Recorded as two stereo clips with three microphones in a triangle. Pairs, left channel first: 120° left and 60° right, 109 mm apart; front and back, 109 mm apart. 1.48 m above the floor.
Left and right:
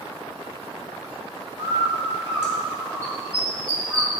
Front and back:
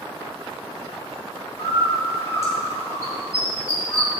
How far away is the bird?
About 2 m.